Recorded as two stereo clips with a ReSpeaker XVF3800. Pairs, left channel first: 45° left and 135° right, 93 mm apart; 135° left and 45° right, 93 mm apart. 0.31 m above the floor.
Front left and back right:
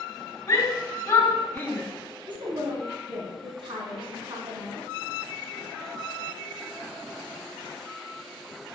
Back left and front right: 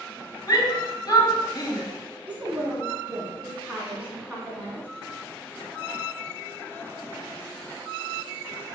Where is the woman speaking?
120° right, 3 m.